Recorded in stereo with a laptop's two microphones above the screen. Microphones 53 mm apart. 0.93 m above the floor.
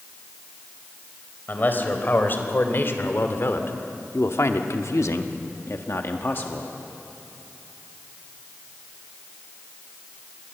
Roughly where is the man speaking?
Left.